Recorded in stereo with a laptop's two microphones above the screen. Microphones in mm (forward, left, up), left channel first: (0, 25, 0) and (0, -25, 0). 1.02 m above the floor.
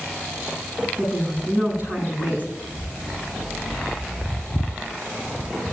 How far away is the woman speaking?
About 9.5 m.